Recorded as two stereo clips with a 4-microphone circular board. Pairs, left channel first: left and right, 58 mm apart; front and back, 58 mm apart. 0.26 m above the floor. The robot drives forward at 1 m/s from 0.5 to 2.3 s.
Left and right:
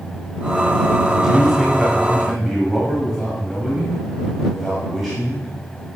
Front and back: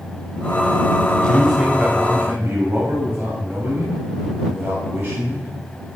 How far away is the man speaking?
About 1.1 m.